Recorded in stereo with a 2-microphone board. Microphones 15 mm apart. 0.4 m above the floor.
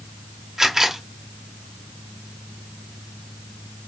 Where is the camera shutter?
30° right (ahead or behind), 0.8 m.